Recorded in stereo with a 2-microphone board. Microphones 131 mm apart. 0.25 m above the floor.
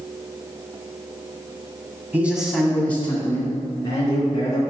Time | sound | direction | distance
2.1 | a man speaking | 15° right (ahead or behind) | 1.8 m